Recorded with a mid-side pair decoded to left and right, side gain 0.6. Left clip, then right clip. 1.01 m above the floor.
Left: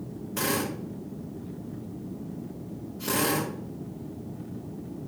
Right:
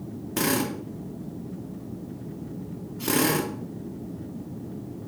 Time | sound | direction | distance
0.4 | a drill | 25° right | 3 m